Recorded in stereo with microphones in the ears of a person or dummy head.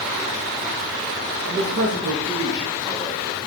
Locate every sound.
1.4 s a man speaking: 65° right (ahead or behind), 1.3 m; by 3.4 s 5° left (ahead or behind), 2.5 m